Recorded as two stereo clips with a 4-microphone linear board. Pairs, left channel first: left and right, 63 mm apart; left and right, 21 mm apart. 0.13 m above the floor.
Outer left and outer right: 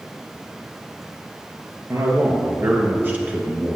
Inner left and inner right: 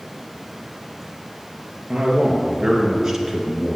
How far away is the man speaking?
About 3 m.